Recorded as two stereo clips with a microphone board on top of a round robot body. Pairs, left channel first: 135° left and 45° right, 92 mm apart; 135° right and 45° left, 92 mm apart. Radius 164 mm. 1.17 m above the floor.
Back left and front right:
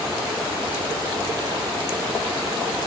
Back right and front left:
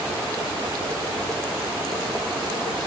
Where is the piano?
I don't hear a piano.